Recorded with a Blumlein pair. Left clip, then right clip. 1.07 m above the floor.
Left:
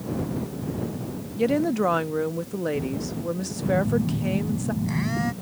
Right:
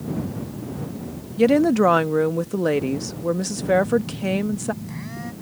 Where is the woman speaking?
20° right.